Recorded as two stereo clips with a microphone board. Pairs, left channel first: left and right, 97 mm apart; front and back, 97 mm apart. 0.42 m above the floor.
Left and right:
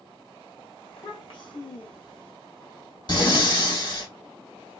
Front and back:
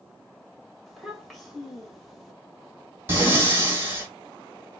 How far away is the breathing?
About 1.9 m.